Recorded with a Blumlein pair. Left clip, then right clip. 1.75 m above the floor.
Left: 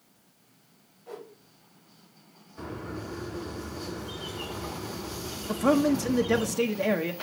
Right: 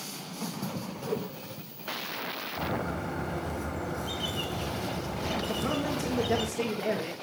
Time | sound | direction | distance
1.1 | a whoosh | 65° right | 2 m
2.6 | a bird | 55° right | 2 m
5.5 | a man speaking | 25° left | 1.1 m